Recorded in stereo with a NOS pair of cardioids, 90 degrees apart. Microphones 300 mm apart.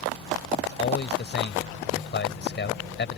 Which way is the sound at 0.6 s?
35° left.